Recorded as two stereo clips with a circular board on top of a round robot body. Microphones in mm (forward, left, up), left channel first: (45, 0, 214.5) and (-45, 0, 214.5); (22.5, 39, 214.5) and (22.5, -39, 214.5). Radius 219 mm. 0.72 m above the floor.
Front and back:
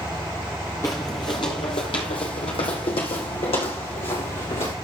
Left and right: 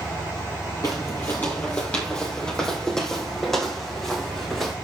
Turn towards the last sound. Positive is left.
turn(degrees=5)